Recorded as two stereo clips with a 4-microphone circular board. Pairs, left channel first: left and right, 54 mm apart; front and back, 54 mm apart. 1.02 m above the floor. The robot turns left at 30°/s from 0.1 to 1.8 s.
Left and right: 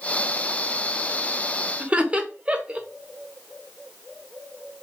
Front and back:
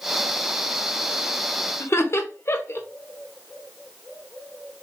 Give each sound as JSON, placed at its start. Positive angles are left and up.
{"t": 1.8, "sound": "laughter", "azimuth_deg": -25, "distance_m": 0.9}